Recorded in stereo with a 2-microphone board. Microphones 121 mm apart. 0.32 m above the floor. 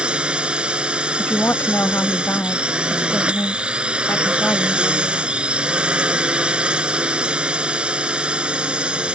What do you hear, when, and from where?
0.0 s a drone: 10° right (ahead or behind)
1.2 s a woman speaking: 20° left (ahead or behind)